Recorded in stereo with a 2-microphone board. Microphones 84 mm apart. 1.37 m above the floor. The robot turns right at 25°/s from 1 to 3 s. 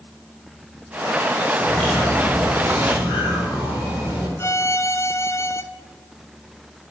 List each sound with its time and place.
1.6 s a bird: 165° left, 3.5 m; by 4.3 s 160° right, 3.5 m
4.4 s a violin: 30° left (ahead or behind), 0.7 m